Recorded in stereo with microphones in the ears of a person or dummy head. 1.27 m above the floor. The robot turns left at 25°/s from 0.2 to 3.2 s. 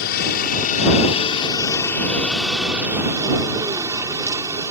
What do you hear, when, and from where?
0.0 s a helicopter: 55° left; by 4.7 s 20° right